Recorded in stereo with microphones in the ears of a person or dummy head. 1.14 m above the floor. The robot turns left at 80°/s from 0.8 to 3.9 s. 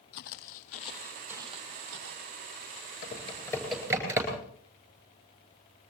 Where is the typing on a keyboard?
55° left (ahead or behind), 9.5 m; by 4.4 s 15° right (ahead or behind), 9.5 m.